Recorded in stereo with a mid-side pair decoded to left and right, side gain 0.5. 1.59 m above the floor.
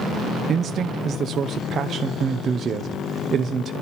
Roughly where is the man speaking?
Ahead right.